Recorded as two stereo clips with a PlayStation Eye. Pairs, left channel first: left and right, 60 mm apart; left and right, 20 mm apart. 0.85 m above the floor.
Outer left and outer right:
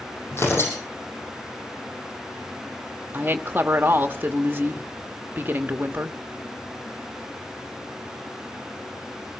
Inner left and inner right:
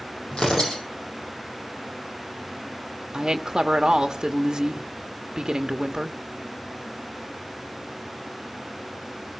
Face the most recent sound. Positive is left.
turn(degrees=-35)  # may be behind; listen again after turning